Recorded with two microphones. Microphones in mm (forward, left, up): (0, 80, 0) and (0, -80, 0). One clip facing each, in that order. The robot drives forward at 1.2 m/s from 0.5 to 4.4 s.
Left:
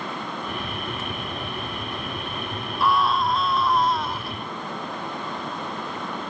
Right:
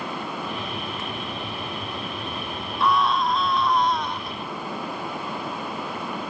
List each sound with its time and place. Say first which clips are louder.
2.8 s a scream: even; centre (ahead or behind)